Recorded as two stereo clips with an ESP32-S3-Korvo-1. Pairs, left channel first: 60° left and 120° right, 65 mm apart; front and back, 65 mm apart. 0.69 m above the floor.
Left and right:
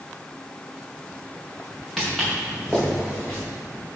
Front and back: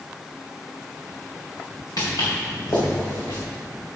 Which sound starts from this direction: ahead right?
Footsteps, at 2.0 s.